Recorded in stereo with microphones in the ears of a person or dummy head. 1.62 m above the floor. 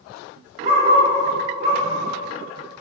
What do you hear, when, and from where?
0.6 s a dog barking: 50° right (ahead or behind), 2.5 m